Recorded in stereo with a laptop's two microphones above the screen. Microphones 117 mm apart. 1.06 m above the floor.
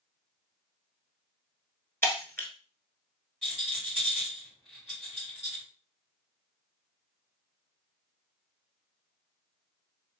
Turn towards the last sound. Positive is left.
turn(degrees=5)  # may be behind; listen again after turning